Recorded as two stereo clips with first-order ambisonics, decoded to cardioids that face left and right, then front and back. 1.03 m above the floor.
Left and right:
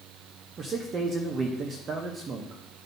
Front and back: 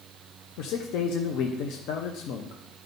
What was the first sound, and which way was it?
A man speaking, 25° right.